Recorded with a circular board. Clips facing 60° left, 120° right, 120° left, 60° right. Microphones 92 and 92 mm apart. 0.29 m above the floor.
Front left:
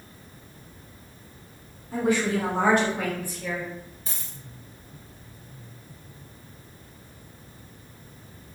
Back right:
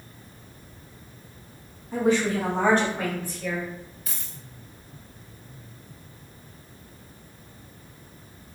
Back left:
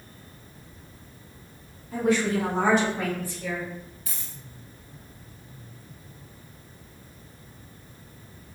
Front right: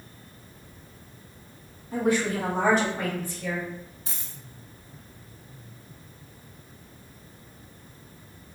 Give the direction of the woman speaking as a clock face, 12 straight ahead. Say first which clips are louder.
Back right 1 dB, back left 1 dB; 12 o'clock.